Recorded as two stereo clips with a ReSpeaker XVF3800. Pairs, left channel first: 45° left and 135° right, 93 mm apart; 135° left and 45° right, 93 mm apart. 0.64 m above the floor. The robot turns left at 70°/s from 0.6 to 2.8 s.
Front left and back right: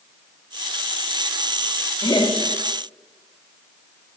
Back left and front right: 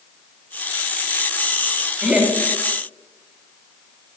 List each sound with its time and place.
2.0 s laughter: 45° left, 1.1 m; by 2.3 s 20° left, 1.1 m